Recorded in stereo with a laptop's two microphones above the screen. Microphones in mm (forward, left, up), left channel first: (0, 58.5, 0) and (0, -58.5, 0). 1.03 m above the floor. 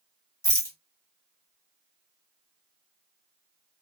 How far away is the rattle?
About 1.0 m.